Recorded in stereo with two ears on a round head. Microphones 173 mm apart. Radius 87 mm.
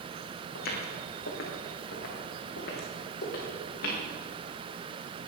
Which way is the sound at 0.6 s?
55° left (ahead or behind).